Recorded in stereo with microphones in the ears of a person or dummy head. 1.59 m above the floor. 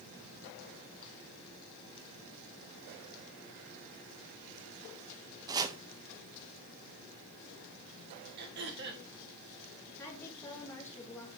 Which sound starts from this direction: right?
Throat clearing, at 8.4 s.